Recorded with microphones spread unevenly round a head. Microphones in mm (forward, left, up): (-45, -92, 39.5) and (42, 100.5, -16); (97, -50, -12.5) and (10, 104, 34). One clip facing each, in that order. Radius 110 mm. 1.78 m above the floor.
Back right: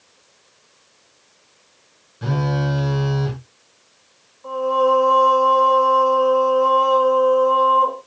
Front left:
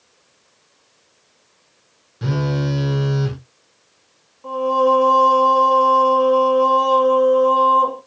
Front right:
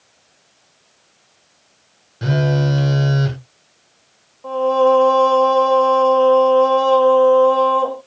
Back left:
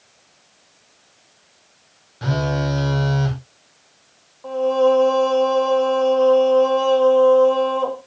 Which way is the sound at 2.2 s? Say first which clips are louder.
Front left 1 dB, front right 4 dB; 10° left.